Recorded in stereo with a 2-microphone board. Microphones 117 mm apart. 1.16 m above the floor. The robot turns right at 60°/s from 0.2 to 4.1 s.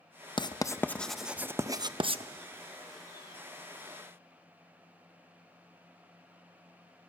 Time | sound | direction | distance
0.4 | writing | 40° left (ahead or behind) | 0.5 m